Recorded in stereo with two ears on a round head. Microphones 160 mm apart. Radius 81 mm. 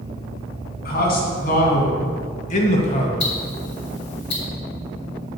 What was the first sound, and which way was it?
A man speaking, 60° left (ahead or behind).